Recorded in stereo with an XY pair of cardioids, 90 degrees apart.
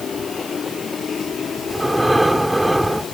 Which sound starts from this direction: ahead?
Breathing, at 1.7 s.